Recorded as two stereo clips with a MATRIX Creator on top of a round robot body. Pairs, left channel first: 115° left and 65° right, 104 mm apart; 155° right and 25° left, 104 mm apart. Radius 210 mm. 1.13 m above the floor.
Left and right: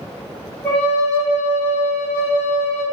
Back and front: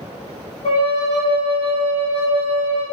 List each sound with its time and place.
0.6 s a flute: 165° right, 1.0 m